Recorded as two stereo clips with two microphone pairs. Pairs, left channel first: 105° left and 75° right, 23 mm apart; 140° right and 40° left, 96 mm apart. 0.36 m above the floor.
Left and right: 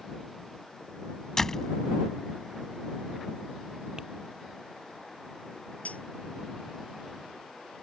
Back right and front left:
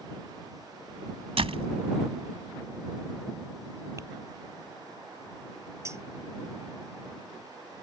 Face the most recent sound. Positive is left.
turn(degrees=105)